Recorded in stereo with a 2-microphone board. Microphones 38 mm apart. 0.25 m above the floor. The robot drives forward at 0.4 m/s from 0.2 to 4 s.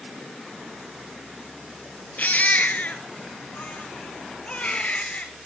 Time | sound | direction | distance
2.2 | a baby crying | 45° left (ahead or behind) | 1.4 m